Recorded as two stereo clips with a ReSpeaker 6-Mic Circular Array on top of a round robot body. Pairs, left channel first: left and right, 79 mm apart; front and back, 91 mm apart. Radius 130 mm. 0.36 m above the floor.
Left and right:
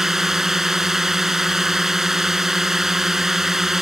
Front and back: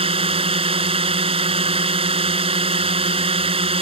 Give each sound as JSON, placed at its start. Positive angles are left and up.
{"t": 0.0, "sound": "a drone", "azimuth_deg": -175}